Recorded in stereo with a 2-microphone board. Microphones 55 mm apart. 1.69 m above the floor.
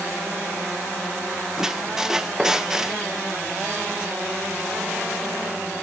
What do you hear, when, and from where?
1.6 s a squeak: 5° right (ahead or behind), 0.6 m